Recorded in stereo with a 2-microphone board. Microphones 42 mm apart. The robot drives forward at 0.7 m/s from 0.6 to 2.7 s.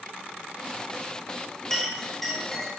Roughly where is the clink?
Centre.